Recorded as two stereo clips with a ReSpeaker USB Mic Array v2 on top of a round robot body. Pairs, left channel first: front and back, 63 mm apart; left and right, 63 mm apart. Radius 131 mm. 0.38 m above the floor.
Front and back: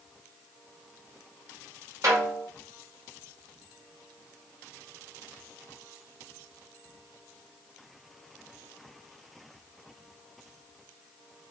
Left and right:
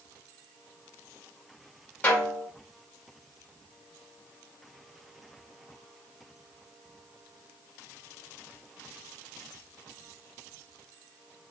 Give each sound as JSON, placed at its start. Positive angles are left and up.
{"t": 2.0, "sound": "a snare drum", "azimuth_deg": 150, "distance_m": 4.0}